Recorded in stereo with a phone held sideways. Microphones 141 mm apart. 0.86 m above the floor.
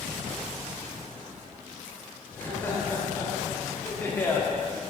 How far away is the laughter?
About 3 m.